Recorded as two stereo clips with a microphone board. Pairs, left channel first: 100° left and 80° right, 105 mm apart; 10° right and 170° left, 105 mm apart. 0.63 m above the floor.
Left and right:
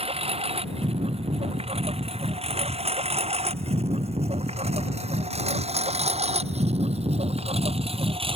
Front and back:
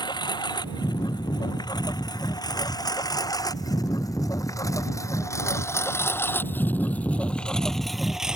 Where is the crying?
I don't hear crying.